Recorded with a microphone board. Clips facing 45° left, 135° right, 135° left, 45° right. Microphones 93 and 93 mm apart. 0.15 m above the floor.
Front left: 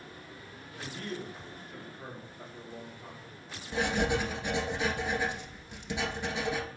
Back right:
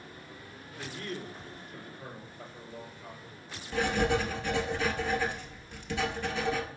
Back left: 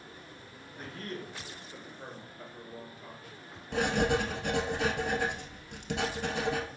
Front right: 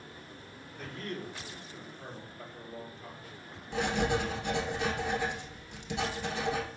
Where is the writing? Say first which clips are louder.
Back right 1 dB, back left 2 dB; 115° left, 0.8 m.